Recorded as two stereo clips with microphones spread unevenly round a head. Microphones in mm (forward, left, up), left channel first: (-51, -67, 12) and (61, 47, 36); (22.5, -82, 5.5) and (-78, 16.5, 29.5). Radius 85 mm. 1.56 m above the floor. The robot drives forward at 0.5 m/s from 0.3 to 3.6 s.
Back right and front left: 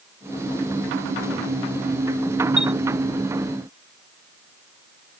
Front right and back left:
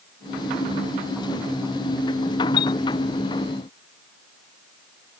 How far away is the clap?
I don't hear a clap.